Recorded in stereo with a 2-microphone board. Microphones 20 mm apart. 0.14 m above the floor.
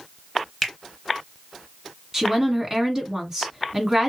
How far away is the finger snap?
About 1.3 m.